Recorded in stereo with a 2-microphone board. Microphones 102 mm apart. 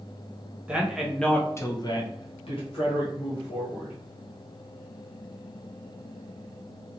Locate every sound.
0.7 s a man speaking: 10° right (ahead or behind), 0.8 m; by 4.0 s 60° left (ahead or behind), 1.6 m